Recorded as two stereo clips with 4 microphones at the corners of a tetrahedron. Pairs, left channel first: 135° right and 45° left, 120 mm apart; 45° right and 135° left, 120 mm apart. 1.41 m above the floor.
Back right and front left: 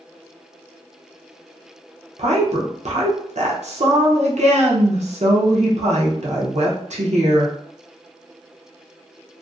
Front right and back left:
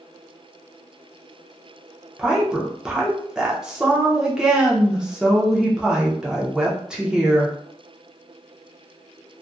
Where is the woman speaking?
50° left, 0.6 m.